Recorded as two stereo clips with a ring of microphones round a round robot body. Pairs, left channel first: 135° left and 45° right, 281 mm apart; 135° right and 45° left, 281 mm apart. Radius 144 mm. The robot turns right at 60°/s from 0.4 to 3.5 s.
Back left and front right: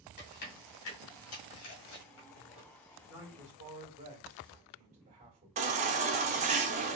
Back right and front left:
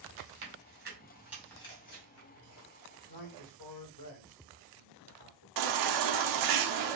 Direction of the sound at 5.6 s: 20° left.